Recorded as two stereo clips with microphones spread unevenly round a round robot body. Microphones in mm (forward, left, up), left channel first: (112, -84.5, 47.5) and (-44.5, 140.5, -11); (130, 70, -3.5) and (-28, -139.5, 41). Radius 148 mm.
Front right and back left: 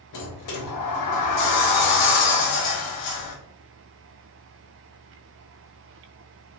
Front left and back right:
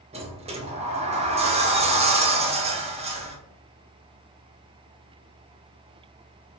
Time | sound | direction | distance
0.1 | a sliding door | 55° right | 0.8 m